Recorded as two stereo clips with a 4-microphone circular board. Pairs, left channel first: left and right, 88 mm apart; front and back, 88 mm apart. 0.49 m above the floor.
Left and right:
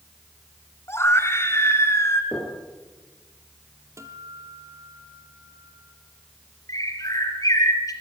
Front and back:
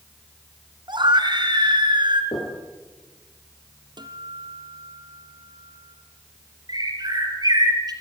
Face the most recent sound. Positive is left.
turn(degrees=140)